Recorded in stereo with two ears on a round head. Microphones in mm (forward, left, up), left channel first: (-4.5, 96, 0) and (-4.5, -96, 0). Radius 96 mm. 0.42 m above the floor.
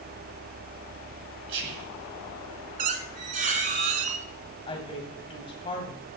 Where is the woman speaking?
25° left (ahead or behind), 2.5 m.